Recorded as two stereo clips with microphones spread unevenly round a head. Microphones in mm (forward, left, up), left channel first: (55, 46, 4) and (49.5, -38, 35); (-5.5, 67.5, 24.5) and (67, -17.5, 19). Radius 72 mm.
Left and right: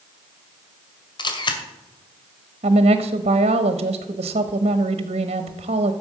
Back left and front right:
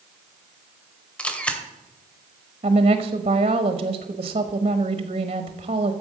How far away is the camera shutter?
About 2 m.